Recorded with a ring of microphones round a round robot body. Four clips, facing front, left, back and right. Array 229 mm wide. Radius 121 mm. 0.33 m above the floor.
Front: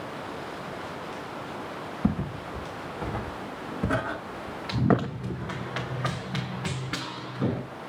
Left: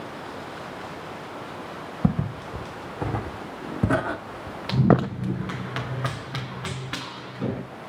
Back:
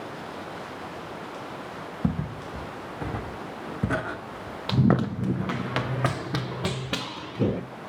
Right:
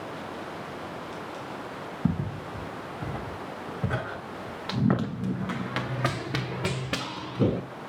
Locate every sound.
2.0 s footsteps: 105° left, 2.5 m; by 5.1 s 95° left, 0.7 m
4.7 s running footsteps: 145° left, 1.8 m; by 7.6 s 130° right, 2.5 m